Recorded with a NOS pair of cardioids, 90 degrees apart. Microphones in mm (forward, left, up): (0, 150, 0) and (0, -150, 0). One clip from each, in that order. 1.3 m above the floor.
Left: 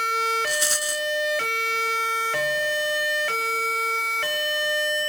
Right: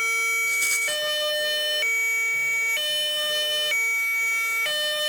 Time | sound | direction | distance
0.5 | a rattle | 55° left | ?